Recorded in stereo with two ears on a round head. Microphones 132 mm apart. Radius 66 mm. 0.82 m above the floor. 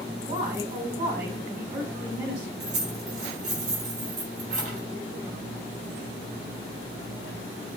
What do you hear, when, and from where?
0.2 s a woman speaking: 55° right (ahead or behind), 5 m
2.6 s keys jangling: 50° right (ahead or behind), 3 m